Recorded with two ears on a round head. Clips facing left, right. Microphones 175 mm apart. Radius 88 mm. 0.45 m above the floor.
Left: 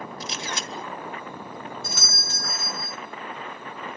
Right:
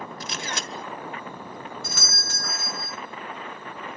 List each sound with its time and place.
0.2 s a camera shutter: 45° right (ahead or behind), 1.3 m
1.8 s a doorbell: 45° right (ahead or behind), 2 m